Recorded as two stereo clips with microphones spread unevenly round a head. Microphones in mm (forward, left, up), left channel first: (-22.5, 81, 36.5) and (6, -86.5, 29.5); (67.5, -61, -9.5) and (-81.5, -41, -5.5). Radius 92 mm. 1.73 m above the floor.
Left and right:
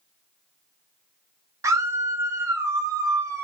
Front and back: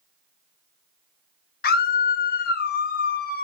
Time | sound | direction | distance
1.6 | a scream | 5° right | 1.0 m